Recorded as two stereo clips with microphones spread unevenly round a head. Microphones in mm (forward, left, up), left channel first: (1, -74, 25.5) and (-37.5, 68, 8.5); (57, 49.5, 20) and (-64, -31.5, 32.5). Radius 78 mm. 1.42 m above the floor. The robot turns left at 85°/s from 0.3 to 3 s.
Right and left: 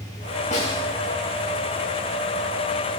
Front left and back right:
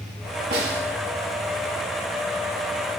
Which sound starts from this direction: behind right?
A snare drum, at 0.5 s.